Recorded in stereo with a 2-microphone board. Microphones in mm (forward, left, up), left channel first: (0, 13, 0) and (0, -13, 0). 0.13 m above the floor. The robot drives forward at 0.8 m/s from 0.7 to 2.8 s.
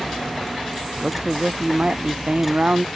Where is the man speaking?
50° right (ahead or behind); by 2.9 s 55° right (ahead or behind).